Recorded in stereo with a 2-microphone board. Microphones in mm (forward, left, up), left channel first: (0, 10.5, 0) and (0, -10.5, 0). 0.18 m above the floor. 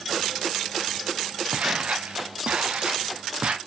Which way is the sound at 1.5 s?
65° right (ahead or behind).